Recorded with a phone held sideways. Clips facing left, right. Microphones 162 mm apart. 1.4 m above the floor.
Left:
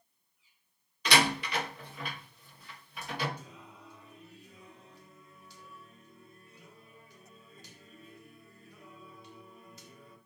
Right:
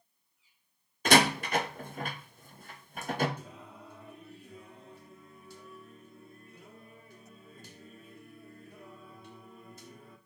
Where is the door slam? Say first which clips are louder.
Right 4 dB; 50° right (ahead or behind), 0.8 m.